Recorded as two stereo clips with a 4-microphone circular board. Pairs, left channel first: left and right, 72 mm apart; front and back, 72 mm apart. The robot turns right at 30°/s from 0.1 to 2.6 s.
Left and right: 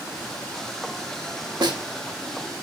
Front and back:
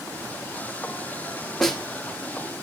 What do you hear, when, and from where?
1.6 s a snare drum: 85° right, 0.8 m; by 1.8 s 80° right, 0.8 m